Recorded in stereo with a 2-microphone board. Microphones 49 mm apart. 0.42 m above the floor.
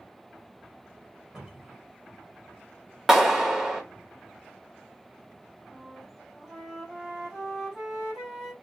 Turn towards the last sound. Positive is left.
turn(degrees=-15)  # may be behind; listen again after turning